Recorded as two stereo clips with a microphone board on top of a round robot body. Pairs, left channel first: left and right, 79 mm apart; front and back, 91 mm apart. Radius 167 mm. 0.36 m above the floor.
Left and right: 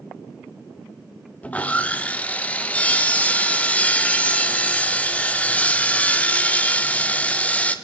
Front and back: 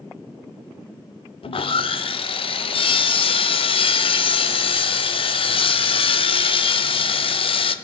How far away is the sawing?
About 0.6 m.